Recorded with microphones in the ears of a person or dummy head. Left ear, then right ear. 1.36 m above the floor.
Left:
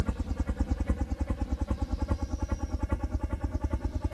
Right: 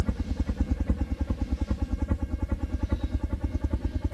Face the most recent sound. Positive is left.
turn(degrees=35)  # may be behind; listen again after turning